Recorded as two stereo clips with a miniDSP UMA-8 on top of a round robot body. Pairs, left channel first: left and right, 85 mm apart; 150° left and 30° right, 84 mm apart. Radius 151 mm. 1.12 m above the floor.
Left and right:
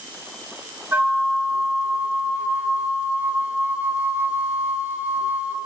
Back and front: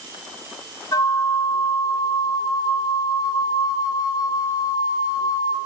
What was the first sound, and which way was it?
A flute, 160° right.